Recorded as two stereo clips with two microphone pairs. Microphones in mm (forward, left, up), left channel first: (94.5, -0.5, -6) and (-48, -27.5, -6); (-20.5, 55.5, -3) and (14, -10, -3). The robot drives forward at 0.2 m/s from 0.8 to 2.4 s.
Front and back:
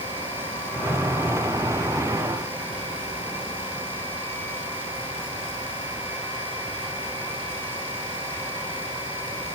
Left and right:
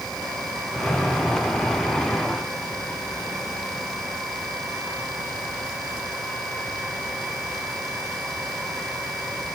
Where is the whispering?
No whispering in this recording.